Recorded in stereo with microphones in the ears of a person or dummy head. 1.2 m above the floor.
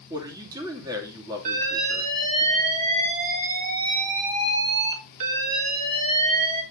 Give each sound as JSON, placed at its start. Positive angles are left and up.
{"t": 0.1, "sound": "a man speaking", "side_deg": -20, "distance_m": 2.5}
{"t": 1.4, "sound": "an alarm", "side_deg": -45, "distance_m": 3.5}